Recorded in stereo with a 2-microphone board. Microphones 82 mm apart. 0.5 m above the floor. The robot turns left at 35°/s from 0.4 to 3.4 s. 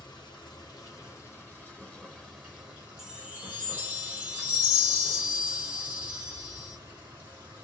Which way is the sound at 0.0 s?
60° left.